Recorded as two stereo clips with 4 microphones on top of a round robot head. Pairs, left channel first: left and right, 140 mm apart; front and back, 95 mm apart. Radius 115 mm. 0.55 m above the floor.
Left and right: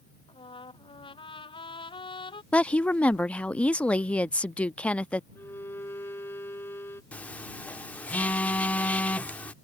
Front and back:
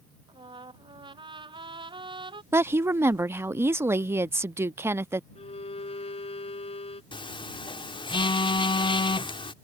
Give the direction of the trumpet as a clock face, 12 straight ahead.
7 o'clock.